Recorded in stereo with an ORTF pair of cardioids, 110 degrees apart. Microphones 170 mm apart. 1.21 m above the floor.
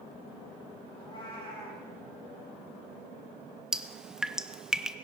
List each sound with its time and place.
0.9 s a cat meowing: 30° left, 8 m
3.7 s dripping: 5° right, 0.6 m